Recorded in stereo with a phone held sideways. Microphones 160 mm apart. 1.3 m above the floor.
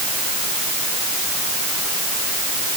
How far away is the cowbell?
I don't hear a cowbell.